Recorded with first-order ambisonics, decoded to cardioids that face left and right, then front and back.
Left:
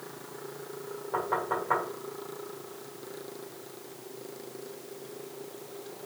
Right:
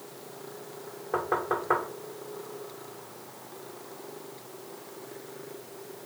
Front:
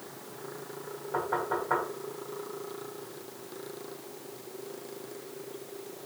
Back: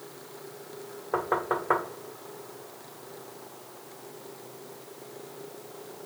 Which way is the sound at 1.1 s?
160° right.